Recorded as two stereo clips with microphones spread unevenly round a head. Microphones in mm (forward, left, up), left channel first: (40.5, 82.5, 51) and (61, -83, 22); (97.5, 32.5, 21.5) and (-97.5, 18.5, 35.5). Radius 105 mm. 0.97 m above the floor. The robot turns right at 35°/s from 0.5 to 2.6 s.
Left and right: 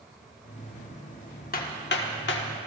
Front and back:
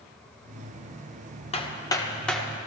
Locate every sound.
1.5 s hammering: 65° left, 1.6 m; by 2.5 s 95° left, 1.6 m